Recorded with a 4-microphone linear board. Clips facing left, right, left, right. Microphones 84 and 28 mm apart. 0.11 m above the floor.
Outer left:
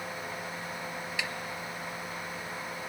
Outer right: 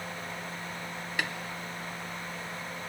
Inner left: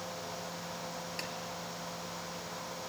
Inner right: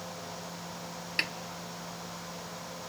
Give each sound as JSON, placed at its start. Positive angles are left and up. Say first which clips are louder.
{"t": 1.2, "sound": "a snare drum", "louder": "outer right 4 dB, inner right 12 dB", "side_deg": -55, "distance_m": 0.5}